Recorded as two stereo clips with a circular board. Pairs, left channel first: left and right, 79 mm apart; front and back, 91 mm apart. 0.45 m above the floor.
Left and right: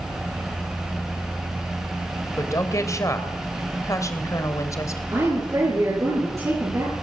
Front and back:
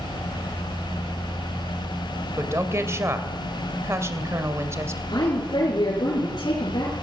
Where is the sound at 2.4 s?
125° left, 2.5 m.